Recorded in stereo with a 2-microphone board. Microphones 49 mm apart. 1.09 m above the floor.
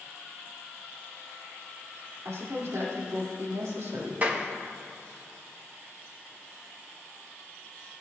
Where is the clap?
35° right (ahead or behind), 1.3 m.